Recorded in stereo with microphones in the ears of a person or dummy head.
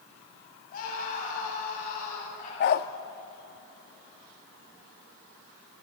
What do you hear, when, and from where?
0.7 s a scream: 50° left (ahead or behind), 9.5 m; by 2.5 s 45° left (ahead or behind), 11 m
2.6 s a dog barking: 50° left (ahead or behind), 0.8 m